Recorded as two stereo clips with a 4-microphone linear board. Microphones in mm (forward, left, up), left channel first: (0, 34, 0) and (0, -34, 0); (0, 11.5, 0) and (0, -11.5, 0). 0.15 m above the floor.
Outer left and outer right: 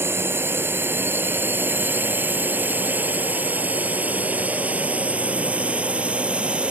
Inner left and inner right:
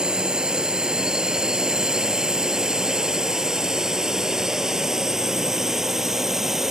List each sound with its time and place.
0.0 s a drone: 35° right (ahead or behind); by 6.7 s 15° right (ahead or behind)